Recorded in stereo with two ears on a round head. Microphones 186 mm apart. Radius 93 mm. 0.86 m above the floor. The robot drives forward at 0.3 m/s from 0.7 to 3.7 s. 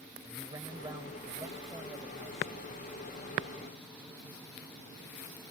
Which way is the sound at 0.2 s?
15° right (ahead or behind).